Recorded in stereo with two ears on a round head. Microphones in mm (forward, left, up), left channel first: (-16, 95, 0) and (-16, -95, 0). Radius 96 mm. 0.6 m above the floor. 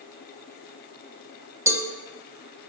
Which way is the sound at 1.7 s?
15° right (ahead or behind).